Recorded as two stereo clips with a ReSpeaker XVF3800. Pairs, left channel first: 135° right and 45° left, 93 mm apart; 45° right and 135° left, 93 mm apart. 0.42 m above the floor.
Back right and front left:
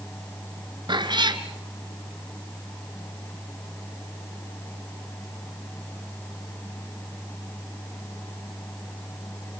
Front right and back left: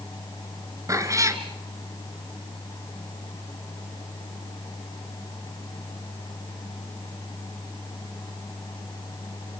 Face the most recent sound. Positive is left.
turn(degrees=80)